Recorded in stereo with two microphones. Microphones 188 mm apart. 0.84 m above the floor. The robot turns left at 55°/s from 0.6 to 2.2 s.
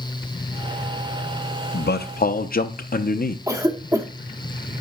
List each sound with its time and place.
1.7 s a man speaking: 65° left (ahead or behind), 0.6 m; by 3.4 s 50° left (ahead or behind), 0.6 m
3.5 s a cough: 15° right (ahead or behind), 1.0 m